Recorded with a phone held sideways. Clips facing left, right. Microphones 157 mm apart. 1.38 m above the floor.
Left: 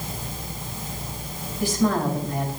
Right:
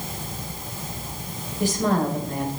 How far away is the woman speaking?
About 5 m.